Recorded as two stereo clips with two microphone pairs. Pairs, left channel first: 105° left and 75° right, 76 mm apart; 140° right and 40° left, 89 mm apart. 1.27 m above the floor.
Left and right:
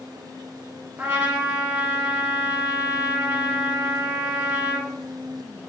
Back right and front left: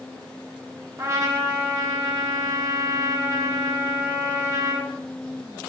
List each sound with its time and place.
1.0 s a trumpet: 15° right, 1.6 m